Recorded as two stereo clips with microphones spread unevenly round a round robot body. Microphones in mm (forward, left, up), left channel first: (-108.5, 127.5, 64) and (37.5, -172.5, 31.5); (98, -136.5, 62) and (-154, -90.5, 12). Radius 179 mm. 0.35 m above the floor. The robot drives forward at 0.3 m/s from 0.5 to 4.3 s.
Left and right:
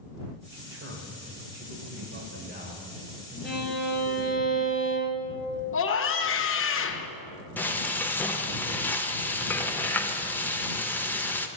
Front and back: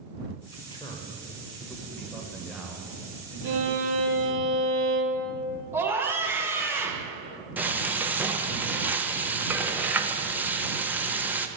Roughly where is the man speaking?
Right.